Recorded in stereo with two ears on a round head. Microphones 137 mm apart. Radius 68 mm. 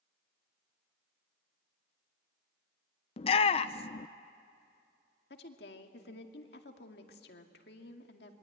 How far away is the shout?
About 0.5 m.